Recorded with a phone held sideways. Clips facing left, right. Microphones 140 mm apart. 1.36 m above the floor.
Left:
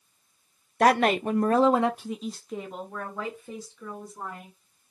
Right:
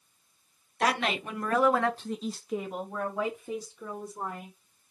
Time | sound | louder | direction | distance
0.8 | a woman speaking | left 8 dB | 55° left (ahead or behind) | 0.6 m